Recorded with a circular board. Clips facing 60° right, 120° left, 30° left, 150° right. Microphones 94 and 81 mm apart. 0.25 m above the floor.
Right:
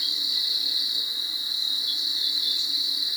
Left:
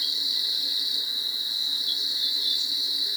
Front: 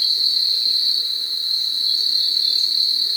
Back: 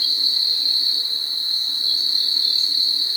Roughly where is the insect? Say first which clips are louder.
Even, front 1 dB; behind.